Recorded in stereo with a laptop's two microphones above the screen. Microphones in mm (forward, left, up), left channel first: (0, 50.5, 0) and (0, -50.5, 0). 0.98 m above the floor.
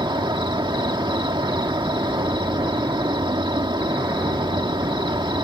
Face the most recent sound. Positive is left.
turn(degrees=-55)  # may be behind; listen again after turning